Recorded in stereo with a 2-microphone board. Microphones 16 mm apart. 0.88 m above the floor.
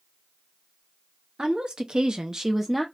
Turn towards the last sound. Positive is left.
turn(degrees=-10)  # may be behind; listen again after turning